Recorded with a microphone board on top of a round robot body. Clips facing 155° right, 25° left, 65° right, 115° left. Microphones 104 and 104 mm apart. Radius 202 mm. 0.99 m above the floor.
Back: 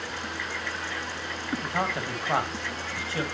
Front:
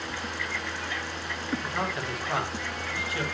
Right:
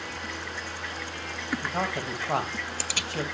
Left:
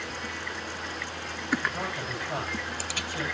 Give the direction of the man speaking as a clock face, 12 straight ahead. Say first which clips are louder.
Back 2 dB, right 3 dB; 3 o'clock.